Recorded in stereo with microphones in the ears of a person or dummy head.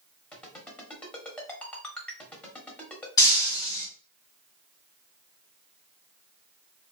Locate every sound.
0.3 s a ringtone: 10° left (ahead or behind), 1.3 m
3.2 s breaking glass: 20° left (ahead or behind), 1.7 m